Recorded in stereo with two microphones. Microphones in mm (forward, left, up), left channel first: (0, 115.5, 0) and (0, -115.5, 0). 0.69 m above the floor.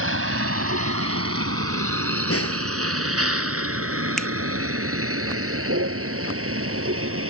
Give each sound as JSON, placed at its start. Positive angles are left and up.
{"t": 0.0, "sound": "a vehicle", "side_deg": -75}
{"t": 2.3, "sound": "a snare drum", "side_deg": 80}
{"t": 4.2, "sound": "a finger snap", "side_deg": 0}